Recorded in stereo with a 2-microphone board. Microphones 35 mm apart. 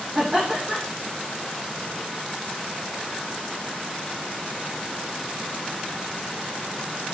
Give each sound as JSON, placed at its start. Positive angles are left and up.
{"t": 0.1, "sound": "laughter", "side_deg": -25, "distance_m": 6.5}